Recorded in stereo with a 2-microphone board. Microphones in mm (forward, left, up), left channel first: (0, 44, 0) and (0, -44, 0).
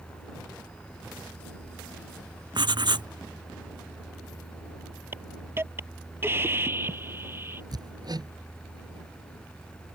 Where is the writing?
60° right (ahead or behind).